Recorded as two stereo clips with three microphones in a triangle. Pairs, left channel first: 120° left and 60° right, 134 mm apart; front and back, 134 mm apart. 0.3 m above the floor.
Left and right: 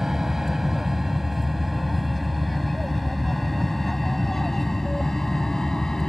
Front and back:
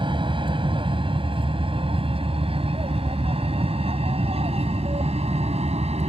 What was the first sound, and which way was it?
An aircraft, 145° right.